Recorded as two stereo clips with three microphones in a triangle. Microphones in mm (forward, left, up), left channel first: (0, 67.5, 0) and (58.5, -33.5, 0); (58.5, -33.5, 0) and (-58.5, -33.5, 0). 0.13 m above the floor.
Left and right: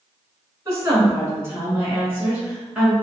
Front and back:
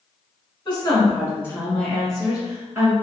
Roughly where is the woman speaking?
Ahead.